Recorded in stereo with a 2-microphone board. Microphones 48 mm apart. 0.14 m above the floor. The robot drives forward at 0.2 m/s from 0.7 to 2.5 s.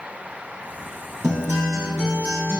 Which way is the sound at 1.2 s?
75° right (ahead or behind).